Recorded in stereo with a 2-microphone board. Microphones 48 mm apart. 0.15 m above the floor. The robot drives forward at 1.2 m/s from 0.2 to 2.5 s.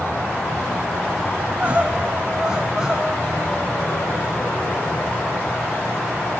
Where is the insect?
50° left (ahead or behind), 6.5 m; by 6.4 s 70° left (ahead or behind), 5.5 m.